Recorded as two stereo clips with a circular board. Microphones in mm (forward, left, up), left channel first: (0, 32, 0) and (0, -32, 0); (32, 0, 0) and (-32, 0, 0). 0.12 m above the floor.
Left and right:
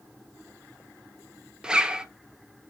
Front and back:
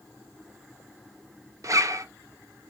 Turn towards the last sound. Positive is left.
turn(degrees=-165)